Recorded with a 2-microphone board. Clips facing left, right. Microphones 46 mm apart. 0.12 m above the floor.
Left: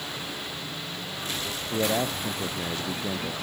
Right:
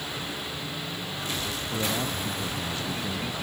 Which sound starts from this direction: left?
A man speaking, at 1.7 s.